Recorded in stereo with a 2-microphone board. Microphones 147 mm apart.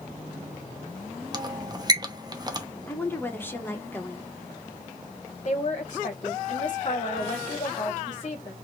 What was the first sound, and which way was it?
A squeak, 30° right (ahead or behind).